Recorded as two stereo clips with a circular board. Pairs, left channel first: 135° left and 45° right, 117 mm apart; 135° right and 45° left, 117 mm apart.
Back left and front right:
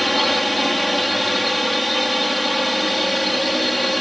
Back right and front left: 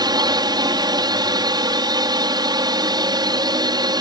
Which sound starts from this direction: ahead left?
A drone, at 0.0 s.